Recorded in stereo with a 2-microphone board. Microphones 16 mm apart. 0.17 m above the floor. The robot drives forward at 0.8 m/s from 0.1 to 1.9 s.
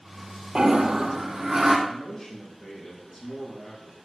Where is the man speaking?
40° left (ahead or behind), 6 m.